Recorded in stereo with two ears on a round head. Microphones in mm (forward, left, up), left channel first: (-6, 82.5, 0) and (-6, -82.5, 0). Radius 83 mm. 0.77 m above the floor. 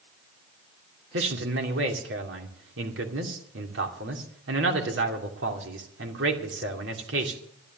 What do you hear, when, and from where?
1.1 s a man speaking: 70° right (ahead or behind), 2.5 m